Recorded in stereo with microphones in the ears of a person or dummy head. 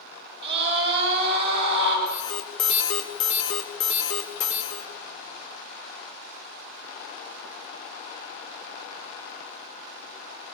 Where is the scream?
50° right (ahead or behind), 10 m.